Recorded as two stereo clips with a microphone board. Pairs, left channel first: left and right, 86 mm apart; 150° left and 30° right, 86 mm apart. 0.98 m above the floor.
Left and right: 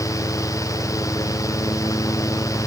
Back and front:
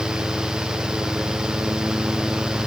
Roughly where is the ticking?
I don't hear ticking.